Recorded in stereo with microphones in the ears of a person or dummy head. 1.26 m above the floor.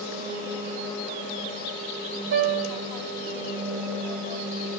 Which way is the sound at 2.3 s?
80° right.